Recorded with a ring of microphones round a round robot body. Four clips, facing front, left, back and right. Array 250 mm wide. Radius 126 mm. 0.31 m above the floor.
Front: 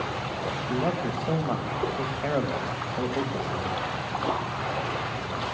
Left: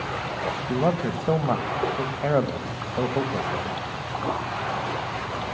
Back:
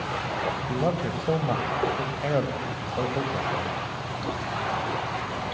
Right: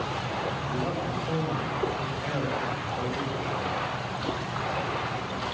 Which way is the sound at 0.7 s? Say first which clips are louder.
Left 6 dB, front 1 dB; 110° left.